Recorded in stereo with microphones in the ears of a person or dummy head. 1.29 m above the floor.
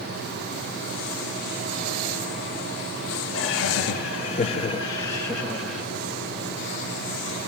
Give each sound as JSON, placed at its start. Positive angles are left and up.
{"t": 3.3, "sound": "laughter", "side_deg": 60, "distance_m": 1.1}